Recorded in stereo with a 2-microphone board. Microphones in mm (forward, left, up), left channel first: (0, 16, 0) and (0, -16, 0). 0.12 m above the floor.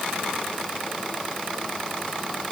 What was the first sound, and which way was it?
Only background noise.